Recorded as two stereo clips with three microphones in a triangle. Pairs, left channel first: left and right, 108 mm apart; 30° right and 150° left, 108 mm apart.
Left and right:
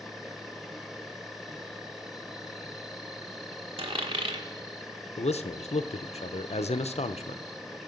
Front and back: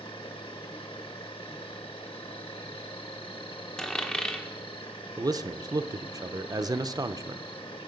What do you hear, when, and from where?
0.0 s an insect: straight ahead, 1.2 m
3.8 s a dropped coin: 110° right, 1.4 m
5.2 s a man speaking: 95° left, 0.6 m